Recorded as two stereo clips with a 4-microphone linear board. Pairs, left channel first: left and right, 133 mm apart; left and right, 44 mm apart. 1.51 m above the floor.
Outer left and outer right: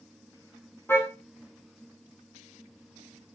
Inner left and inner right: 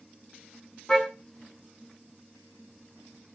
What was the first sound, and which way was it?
A car horn, 15° left (ahead or behind).